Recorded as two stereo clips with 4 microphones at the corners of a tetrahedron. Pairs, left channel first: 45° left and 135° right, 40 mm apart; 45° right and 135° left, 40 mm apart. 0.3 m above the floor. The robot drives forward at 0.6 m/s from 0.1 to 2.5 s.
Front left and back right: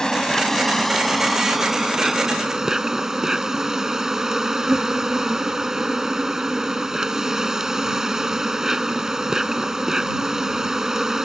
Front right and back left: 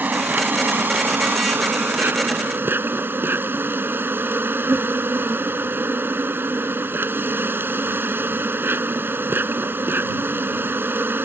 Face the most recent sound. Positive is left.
turn(degrees=150)